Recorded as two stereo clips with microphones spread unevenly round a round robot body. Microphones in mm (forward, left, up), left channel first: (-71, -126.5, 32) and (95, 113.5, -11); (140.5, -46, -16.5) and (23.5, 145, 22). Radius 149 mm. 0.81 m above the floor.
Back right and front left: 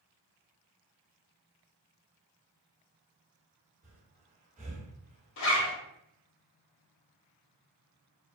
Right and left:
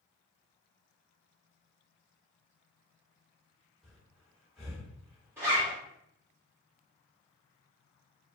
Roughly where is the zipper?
Behind.